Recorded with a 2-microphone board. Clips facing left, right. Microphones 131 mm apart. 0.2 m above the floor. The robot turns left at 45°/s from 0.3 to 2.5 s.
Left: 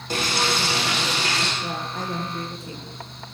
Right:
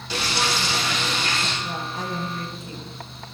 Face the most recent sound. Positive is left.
turn(degrees=35)